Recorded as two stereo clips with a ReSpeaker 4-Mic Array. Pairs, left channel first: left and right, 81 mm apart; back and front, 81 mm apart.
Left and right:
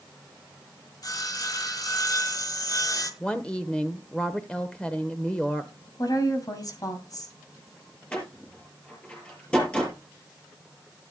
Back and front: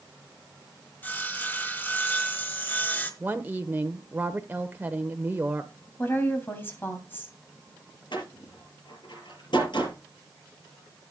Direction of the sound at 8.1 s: 165° left.